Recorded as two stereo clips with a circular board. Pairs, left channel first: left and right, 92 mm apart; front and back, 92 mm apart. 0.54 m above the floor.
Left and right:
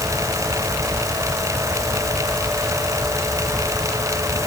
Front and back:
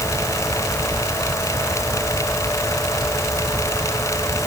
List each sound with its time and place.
Only background noise.